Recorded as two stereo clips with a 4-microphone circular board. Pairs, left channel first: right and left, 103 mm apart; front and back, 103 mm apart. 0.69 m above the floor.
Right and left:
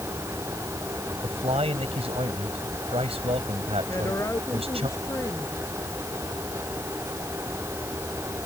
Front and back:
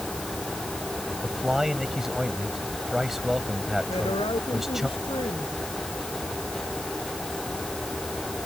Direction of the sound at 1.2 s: 95° left.